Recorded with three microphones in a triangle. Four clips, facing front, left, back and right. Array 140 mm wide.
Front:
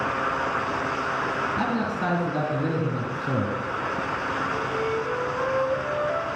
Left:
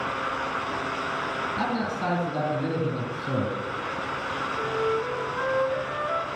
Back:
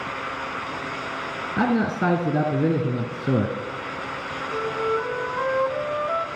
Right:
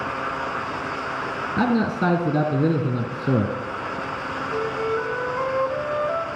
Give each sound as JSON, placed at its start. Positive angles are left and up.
{"t": 1.6, "sound": "a man speaking", "azimuth_deg": -135, "distance_m": 2.5}
{"t": 4.5, "sound": "a flute", "azimuth_deg": -155, "distance_m": 2.0}